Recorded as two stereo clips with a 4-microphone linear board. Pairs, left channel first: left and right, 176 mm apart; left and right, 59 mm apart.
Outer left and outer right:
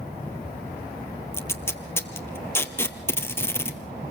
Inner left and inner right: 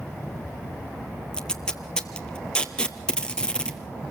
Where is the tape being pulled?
15° left (ahead or behind), 1.8 m.